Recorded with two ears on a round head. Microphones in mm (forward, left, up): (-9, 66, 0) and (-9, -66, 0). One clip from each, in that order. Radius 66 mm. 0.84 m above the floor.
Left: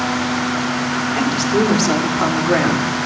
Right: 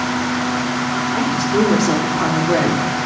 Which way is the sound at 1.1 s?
70° left (ahead or behind).